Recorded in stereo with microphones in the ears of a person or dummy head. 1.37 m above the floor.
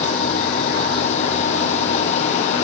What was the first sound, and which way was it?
A machine running, 40° left (ahead or behind).